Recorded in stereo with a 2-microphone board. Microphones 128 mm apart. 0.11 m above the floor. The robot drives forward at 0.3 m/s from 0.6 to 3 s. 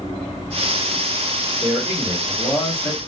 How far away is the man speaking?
About 1.7 m.